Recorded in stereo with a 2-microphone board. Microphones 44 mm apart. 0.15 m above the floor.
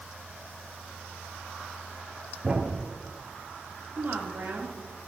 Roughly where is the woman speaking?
Right.